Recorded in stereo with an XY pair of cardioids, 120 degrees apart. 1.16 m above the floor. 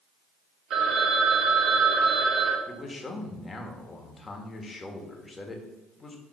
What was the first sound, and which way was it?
A phone ringing, 50° right.